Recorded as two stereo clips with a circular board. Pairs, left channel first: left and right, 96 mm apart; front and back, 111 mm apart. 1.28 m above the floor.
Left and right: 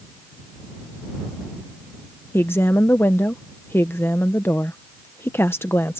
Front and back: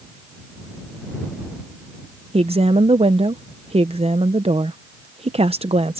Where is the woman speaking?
155° left.